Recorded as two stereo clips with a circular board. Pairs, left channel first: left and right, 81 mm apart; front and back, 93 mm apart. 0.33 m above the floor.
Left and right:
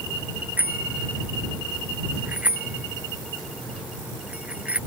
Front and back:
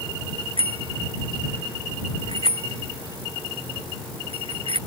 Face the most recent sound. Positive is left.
turn(degrees=-165)